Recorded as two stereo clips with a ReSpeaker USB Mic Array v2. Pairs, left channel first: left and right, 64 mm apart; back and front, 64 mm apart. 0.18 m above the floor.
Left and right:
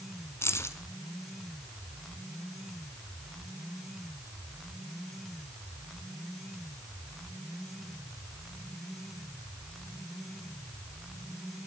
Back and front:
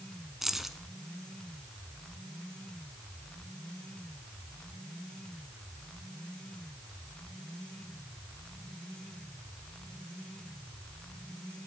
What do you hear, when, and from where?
0.4 s keys jangling: 85° left, 1.2 m